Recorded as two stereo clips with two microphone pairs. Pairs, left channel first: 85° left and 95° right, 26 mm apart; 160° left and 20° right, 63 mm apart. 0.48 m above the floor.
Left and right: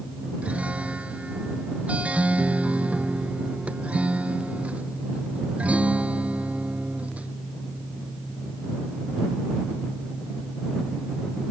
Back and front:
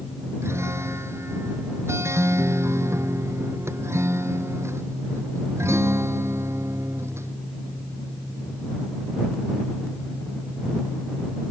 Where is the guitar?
65° right.